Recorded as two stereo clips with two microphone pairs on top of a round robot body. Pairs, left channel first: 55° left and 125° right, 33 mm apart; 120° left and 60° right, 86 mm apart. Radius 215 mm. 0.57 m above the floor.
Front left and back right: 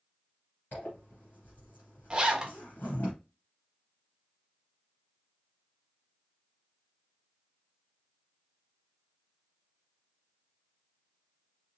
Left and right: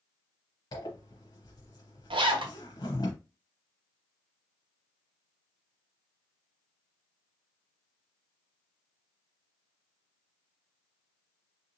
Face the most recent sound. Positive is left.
turn(degrees=-60)